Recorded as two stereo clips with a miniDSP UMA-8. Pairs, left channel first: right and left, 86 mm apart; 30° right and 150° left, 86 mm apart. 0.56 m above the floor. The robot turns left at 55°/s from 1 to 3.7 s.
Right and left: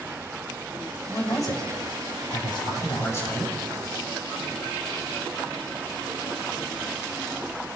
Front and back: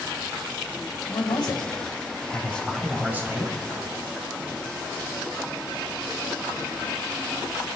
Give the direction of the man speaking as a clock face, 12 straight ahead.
1 o'clock.